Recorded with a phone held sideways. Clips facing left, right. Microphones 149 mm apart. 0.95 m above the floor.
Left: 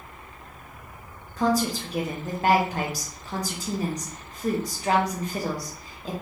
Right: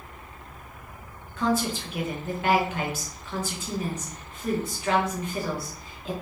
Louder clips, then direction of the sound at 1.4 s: Left 2 dB; 35° left (ahead or behind).